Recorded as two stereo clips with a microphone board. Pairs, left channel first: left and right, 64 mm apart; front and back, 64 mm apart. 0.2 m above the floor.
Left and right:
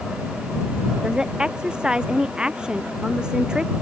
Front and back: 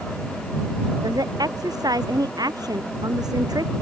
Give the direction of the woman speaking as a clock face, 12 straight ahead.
6 o'clock.